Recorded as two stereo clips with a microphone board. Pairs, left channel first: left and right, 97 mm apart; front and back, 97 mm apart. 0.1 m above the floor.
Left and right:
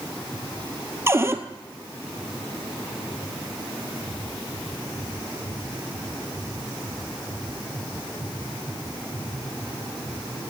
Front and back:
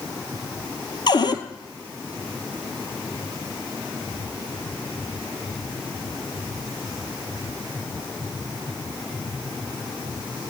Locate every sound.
1.1 s a cupboard door: 30° right, 1.0 m